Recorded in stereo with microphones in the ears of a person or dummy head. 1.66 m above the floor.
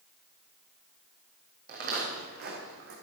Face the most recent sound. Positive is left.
turn(degrees=-65)  # may be behind; listen again after turning